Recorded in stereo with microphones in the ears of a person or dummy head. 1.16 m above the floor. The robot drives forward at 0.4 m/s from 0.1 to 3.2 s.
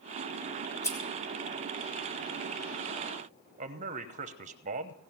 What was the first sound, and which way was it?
Scissors, 15° left (ahead or behind).